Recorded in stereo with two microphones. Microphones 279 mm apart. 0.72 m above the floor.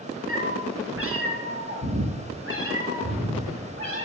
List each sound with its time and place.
0.3 s a cat meowing: 50° right (ahead or behind), 2 m; by 4.0 s 45° right (ahead or behind), 4 m